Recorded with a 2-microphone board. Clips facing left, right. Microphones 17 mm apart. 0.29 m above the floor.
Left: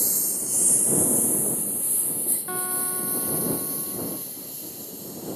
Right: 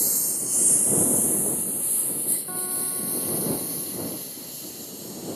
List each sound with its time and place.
0.0 s a lawn mower: 5° right (ahead or behind); by 5.4 s 15° right (ahead or behind)
2.5 s a guitar: 35° left (ahead or behind)